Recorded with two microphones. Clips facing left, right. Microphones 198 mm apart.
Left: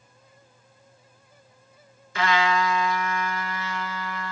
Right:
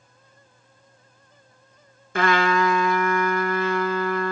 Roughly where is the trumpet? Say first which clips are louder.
Right 3 dB; right.